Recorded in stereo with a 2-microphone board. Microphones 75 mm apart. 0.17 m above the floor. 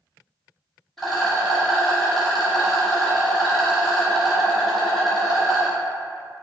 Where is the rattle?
Centre (ahead or behind), 1.1 m.